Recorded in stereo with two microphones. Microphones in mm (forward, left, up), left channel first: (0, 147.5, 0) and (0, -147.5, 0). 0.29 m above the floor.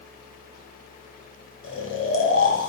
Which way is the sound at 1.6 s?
45° left (ahead or behind).